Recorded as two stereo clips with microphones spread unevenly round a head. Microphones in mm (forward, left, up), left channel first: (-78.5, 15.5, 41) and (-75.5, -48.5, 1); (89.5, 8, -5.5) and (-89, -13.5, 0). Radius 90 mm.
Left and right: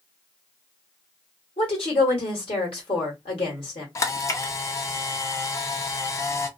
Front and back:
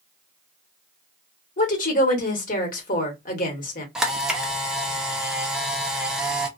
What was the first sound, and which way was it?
A woman speaking, 55° left.